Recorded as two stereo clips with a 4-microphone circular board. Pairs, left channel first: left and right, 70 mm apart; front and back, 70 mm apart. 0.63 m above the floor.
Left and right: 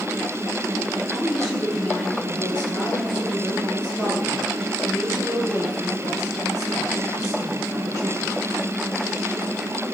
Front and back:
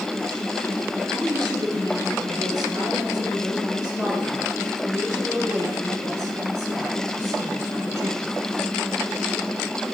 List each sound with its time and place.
1.1 s a woman speaking: 175° left, 7.5 m; by 8.4 s 135° left, 12.5 m